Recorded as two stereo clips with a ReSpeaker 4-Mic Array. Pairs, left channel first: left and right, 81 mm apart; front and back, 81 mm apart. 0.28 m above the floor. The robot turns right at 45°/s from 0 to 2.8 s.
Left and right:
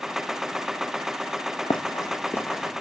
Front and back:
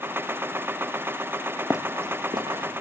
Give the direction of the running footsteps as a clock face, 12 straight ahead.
9 o'clock.